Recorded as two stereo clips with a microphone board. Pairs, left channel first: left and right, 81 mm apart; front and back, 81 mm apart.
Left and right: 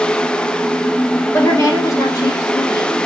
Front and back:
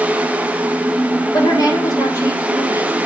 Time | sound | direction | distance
1.3 | a woman speaking | 35° left | 3.5 m